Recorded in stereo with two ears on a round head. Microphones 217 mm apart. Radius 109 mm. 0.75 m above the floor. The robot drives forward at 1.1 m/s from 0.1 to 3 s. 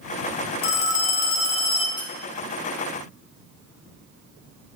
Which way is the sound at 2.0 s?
20° left (ahead or behind).